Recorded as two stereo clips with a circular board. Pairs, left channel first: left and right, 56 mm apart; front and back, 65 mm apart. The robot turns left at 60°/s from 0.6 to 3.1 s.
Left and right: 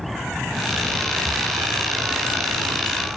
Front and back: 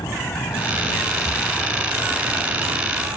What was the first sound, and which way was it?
An aircraft, straight ahead.